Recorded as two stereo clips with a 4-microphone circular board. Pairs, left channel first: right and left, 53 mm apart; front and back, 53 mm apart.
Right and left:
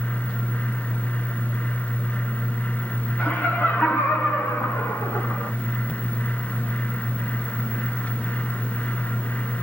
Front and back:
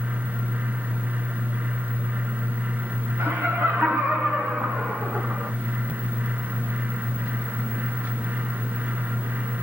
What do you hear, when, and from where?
3.2 s laughter: 150° right, 1.7 m; by 5.5 s 105° right, 1.9 m